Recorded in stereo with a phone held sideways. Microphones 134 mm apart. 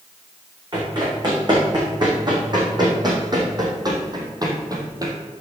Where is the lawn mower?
No lawn mower in this recording.